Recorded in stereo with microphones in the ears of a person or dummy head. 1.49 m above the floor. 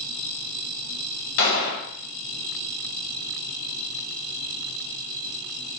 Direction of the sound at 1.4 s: 50° left (ahead or behind).